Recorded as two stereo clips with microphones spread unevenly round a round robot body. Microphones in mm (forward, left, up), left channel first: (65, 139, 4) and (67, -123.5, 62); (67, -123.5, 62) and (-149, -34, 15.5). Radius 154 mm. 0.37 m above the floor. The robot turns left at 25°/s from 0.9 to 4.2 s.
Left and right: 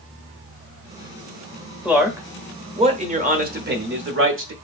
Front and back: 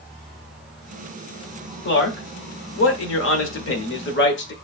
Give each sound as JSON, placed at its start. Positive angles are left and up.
{"t": 1.9, "sound": "a man speaking", "azimuth_deg": 5, "distance_m": 1.3}